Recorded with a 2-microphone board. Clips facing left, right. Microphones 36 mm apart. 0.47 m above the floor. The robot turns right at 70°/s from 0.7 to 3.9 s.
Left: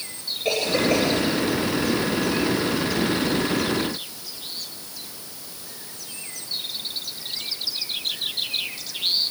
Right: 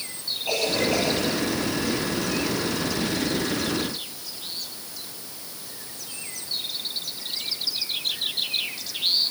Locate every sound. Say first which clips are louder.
0.5 s a cough: left 3 dB; 75° left (ahead or behind), 10 m